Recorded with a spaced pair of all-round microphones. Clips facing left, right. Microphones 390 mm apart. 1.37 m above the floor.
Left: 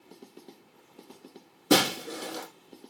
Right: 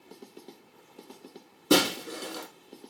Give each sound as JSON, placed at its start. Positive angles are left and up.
{"t": 1.7, "sound": "breaking glass", "side_deg": -5, "distance_m": 3.5}